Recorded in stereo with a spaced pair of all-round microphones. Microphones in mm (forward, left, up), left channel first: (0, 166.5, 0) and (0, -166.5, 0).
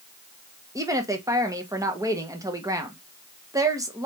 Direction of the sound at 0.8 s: 10° right (ahead or behind).